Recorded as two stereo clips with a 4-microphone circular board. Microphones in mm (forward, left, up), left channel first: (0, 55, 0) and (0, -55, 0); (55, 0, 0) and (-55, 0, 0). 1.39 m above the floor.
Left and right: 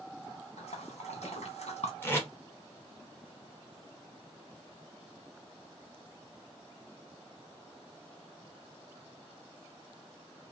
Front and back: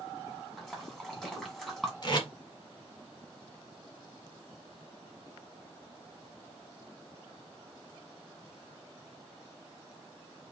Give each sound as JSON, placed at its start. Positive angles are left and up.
{"t": 0.6, "sound": "a splash", "azimuth_deg": 90, "distance_m": 1.3}
{"t": 2.0, "sound": "tape being pulled", "azimuth_deg": 30, "distance_m": 1.2}